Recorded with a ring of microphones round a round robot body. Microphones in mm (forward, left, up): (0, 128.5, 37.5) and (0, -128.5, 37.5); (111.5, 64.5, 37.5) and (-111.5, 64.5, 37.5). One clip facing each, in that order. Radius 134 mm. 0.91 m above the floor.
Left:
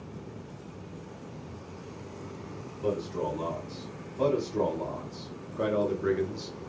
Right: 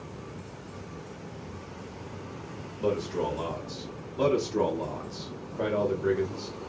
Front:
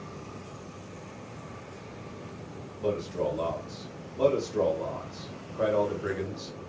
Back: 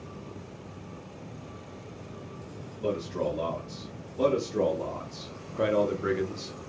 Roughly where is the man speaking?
Right.